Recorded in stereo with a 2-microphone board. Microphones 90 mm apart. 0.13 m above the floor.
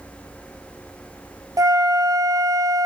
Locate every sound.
1.6 s a flute: 40° right (ahead or behind), 0.6 m